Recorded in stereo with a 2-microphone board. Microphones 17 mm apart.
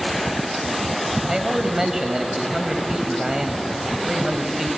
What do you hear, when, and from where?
1.3 s a man speaking: 35° right (ahead or behind), 1.6 m